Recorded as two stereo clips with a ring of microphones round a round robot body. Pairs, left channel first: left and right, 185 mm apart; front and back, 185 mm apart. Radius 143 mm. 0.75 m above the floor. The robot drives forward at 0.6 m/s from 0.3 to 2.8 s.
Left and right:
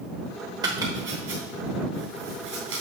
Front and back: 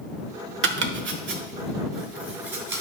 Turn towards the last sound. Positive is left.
turn(degrees=-175)